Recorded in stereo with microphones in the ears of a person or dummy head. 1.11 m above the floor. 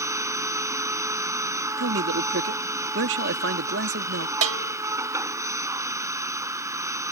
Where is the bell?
80° right.